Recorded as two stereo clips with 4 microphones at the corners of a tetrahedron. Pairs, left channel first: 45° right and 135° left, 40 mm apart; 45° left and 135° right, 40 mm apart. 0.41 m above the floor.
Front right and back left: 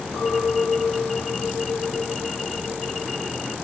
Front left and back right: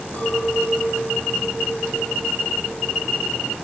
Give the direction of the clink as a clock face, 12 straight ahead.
12 o'clock.